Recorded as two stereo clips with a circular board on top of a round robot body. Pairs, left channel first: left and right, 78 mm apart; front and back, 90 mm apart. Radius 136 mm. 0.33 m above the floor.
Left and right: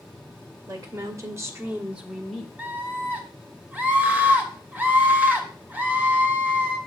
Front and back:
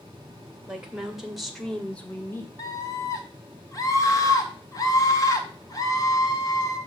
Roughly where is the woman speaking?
Right.